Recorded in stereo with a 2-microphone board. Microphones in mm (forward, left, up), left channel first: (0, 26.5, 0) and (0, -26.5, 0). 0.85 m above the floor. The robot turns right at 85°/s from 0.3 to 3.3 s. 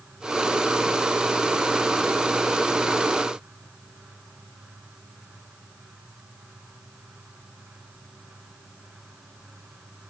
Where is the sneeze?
No sneeze in this recording.